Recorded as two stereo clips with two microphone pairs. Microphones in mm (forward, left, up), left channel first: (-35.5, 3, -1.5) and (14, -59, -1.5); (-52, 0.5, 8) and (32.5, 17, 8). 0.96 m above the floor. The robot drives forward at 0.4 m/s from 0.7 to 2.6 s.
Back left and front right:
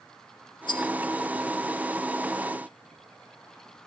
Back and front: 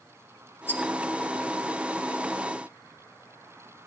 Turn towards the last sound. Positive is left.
turn(degrees=145)